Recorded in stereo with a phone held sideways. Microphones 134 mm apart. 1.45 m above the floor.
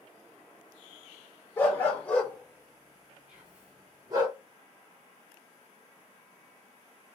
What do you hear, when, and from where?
1.6 s a dog barking: 20° left (ahead or behind), 1.3 m; by 4.3 s 30° right (ahead or behind), 1.4 m
3.3 s whispering: 10° right (ahead or behind), 1.9 m